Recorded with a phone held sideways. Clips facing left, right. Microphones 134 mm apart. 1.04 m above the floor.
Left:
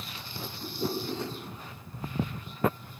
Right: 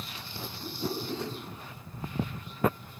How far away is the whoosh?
About 7 m.